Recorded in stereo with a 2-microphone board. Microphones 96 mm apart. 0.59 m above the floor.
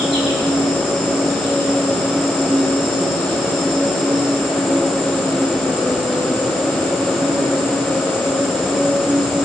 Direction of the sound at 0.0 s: 65° left (ahead or behind).